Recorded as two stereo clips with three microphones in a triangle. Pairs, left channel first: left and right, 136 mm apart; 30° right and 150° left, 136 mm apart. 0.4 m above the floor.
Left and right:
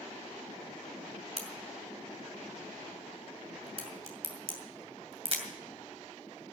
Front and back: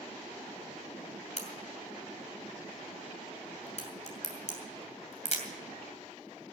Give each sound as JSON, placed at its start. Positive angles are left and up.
{"t": 1.4, "sound": "a crack", "azimuth_deg": -55, "distance_m": 2.5}